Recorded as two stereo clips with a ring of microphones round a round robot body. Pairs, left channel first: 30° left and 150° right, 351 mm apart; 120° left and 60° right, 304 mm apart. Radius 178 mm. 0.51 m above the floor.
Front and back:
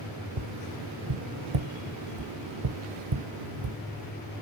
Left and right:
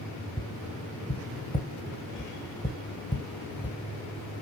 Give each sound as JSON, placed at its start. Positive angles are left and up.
{"t": 0.4, "sound": "tapping", "azimuth_deg": -165, "distance_m": 1.1}